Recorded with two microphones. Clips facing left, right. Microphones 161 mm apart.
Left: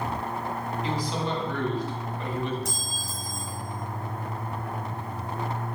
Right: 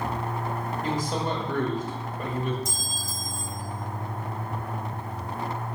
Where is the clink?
70° left (ahead or behind), 1.2 m.